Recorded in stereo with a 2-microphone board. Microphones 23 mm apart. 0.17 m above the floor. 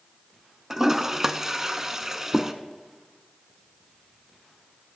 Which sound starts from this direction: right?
A toilet flushing, at 0.7 s.